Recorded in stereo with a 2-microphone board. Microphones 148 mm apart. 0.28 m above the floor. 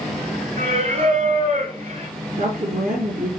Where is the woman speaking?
70° right (ahead or behind), 4.5 m.